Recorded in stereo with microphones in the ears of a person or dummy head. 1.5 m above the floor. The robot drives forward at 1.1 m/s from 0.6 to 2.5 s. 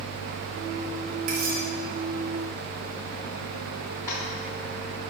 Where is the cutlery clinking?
40° right (ahead or behind), 2 m; by 1.6 s 35° right (ahead or behind), 2.5 m.